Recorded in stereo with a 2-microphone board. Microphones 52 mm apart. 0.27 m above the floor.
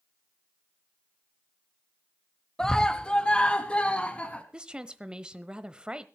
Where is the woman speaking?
20° right (ahead or behind), 1.0 m.